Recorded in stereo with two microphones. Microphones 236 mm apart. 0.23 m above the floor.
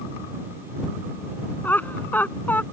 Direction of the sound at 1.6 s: 5° left (ahead or behind).